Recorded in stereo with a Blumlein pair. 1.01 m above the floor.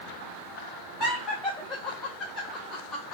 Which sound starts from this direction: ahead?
Laughter, at 1.0 s.